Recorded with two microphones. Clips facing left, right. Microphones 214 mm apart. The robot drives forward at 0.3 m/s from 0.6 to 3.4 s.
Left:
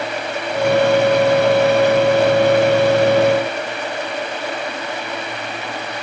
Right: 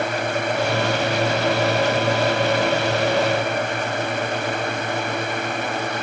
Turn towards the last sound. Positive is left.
No sound to turn to.